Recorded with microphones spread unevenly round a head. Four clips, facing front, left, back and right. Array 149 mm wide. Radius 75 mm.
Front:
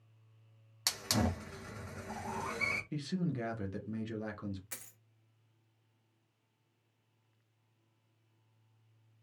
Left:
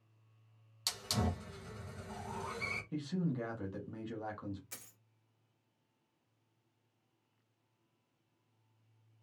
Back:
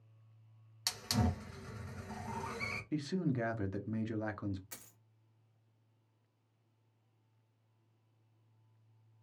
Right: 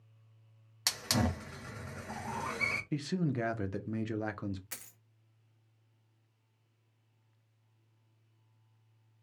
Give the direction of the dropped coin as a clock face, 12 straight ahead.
2 o'clock.